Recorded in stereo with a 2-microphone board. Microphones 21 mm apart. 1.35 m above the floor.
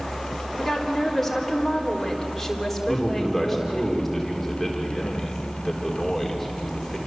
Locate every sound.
0.6 s a woman speaking: 5° left (ahead or behind), 3.5 m
2.9 s a man speaking: centre (ahead or behind), 3.5 m